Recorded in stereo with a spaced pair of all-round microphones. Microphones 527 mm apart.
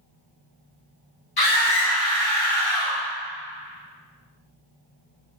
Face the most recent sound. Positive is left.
turn(degrees=5)  # may be behind; listen again after turning